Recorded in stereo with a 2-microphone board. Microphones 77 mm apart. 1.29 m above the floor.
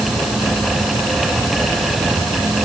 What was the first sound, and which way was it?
Only background noise.